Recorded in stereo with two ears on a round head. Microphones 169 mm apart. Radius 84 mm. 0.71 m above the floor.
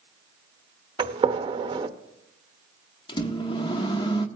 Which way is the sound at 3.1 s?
25° left (ahead or behind).